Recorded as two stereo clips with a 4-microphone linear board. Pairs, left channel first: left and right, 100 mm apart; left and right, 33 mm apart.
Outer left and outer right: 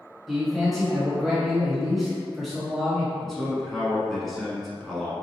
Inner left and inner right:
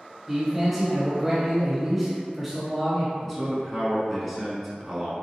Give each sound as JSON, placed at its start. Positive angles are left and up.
{"t": 0.3, "sound": "a man speaking", "side_deg": 0, "distance_m": 1.0}
{"t": 3.2, "sound": "a man speaking", "side_deg": 5, "distance_m": 1.0}